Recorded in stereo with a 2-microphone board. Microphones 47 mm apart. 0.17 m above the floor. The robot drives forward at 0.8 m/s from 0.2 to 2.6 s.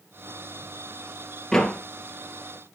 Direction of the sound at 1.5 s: 10° left (ahead or behind).